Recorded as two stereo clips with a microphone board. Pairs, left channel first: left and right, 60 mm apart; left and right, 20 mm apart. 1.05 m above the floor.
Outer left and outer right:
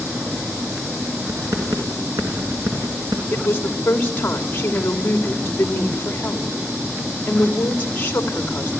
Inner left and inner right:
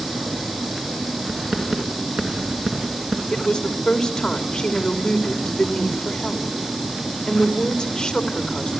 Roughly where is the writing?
Right.